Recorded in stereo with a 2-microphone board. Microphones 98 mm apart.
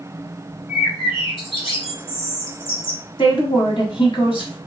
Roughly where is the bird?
Left.